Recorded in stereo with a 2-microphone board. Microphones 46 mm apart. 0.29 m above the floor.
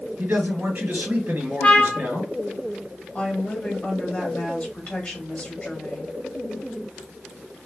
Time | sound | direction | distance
0.2 | a man speaking | 50° right (ahead or behind) | 2.5 m
1.6 | a trumpet | 30° left (ahead or behind) | 0.5 m
3.1 | a woman speaking | 30° left (ahead or behind) | 1.3 m